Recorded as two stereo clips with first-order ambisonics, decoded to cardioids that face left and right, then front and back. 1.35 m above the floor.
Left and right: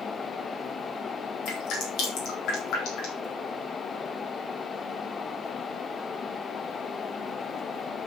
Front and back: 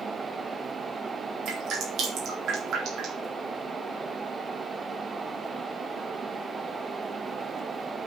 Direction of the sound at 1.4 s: 130° left.